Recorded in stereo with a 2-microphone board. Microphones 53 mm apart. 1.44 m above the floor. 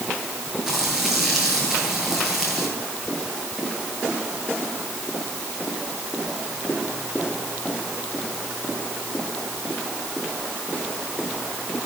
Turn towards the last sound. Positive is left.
turn(degrees=-5)  # may be behind; listen again after turning